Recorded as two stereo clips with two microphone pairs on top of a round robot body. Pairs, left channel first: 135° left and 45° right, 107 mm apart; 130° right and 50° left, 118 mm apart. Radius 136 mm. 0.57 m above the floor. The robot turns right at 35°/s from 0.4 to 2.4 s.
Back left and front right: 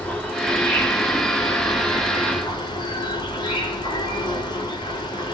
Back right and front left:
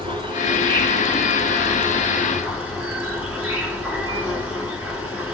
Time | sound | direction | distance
0.0 | an insect | 55° left | 1.8 m